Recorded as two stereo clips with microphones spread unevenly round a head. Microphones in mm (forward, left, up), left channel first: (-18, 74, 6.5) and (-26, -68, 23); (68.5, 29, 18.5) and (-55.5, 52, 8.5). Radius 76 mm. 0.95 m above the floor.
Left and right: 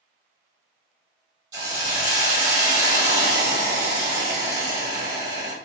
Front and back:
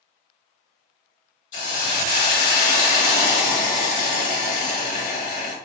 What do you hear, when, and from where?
1.5 s a hiss: 35° right, 1.2 m